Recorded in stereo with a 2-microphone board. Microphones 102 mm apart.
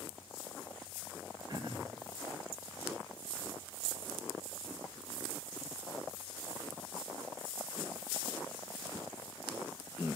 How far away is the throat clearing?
About 2.5 m.